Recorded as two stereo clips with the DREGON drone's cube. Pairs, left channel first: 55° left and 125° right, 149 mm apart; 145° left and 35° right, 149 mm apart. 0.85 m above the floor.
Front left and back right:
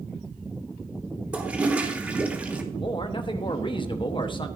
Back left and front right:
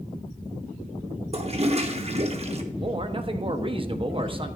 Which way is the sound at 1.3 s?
45° right.